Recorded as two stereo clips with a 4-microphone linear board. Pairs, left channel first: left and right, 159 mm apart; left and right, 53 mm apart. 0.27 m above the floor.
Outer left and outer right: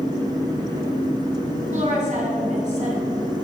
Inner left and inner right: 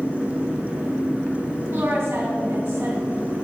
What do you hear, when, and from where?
1.7 s a woman speaking: 55° right (ahead or behind), 2.5 m